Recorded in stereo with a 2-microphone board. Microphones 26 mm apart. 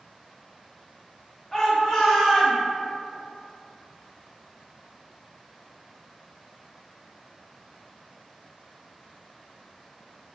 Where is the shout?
5° right (ahead or behind), 0.9 m; by 2.6 s 15° left (ahead or behind), 1.1 m.